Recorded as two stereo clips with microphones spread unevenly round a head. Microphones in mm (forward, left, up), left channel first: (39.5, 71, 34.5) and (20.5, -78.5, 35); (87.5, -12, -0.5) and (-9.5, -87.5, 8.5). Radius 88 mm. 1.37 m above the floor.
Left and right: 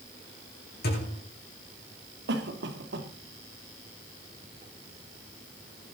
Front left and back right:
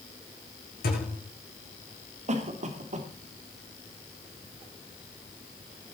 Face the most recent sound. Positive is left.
turn(degrees=-115)